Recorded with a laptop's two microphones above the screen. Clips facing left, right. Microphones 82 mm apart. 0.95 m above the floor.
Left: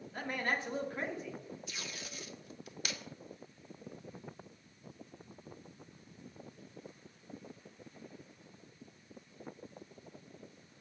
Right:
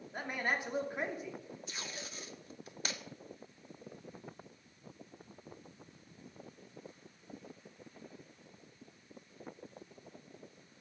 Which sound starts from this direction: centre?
A man speaking, at 0.1 s.